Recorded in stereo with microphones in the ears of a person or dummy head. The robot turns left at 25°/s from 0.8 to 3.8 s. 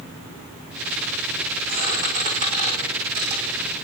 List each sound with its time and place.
1.7 s a squeak: 10° right (ahead or behind), 4.5 m; by 3.4 s 50° right (ahead or behind), 4.5 m